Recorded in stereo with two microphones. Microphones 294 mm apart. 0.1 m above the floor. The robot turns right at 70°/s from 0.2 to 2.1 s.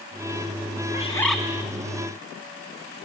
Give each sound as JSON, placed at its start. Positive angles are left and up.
{"t": 0.9, "sound": "a bird", "azimuth_deg": 155, "distance_m": 1.4}